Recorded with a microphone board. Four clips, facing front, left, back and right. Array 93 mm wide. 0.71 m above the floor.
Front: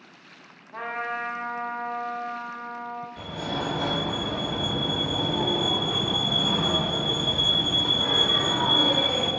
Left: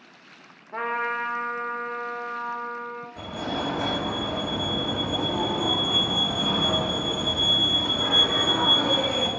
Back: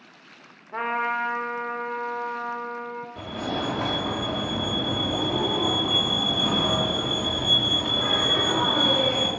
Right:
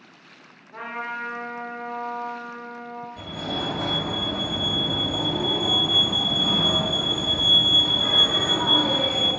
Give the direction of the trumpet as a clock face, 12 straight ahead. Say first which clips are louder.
Left 4 dB, back 5 dB; 7 o'clock.